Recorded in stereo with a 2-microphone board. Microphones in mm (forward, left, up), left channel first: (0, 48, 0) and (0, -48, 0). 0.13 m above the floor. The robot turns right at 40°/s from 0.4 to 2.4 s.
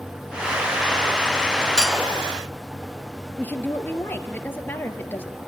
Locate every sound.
1.8 s cutlery clinking: 5° left (ahead or behind), 0.8 m; by 2.0 s centre (ahead or behind), 0.8 m
3.4 s a woman speaking: 20° left (ahead or behind), 2.5 m